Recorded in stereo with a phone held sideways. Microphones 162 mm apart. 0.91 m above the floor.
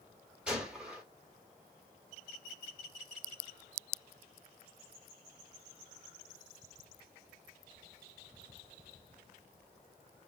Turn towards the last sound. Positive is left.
turn(degrees=-5)  # may be behind; listen again after turning